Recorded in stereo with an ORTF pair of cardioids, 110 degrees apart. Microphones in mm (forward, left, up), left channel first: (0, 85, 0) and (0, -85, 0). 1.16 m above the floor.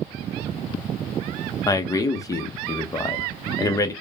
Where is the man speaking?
20° left, 1.0 m.